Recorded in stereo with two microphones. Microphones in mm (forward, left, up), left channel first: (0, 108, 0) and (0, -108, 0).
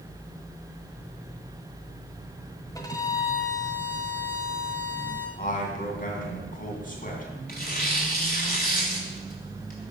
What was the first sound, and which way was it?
A violin, 15° left (ahead or behind).